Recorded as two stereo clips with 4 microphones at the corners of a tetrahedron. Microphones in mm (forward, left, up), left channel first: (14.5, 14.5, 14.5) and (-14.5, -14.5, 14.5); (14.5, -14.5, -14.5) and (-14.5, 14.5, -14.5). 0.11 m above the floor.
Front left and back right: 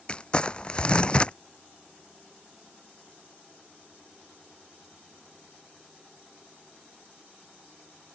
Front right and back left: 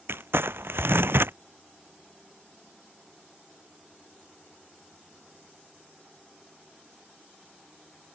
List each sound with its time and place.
0.1 s crumpling: 110° left